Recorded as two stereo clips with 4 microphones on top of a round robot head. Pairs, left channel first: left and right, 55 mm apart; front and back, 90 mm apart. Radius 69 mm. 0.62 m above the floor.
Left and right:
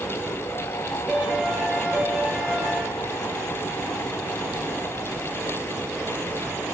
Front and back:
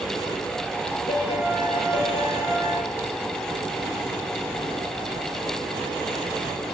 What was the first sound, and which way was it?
A piano, 5° right.